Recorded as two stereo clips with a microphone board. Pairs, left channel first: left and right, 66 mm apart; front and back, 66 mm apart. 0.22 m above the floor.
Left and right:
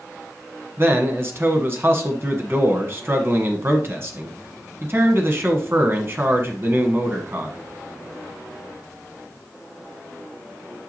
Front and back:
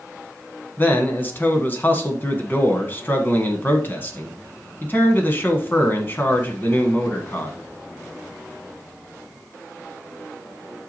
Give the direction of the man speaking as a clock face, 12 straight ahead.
2 o'clock.